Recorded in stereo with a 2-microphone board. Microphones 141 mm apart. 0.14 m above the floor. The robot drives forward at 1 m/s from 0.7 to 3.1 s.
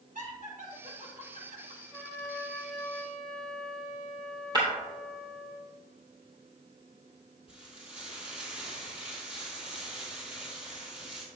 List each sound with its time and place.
0.1 s laughter: 70° right (ahead or behind), 3.5 m
1.9 s a trumpet: 5° left (ahead or behind), 2.5 m; by 5.5 s 10° left (ahead or behind), 1.4 m
4.5 s breaking glass: 30° right (ahead or behind), 2.5 m
7.5 s frying: 5° right (ahead or behind), 3.5 m